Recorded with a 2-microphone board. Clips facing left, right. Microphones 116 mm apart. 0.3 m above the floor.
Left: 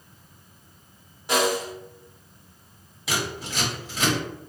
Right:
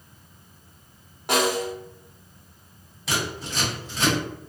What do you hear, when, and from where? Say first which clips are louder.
1.3 s a snare drum: even; 60° right (ahead or behind), 0.8 m
3.1 s scissors: even; centre (ahead or behind), 1.7 m